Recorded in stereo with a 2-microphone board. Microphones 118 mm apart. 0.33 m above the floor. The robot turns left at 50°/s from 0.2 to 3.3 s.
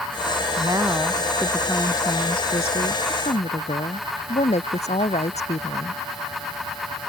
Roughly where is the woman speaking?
Behind right.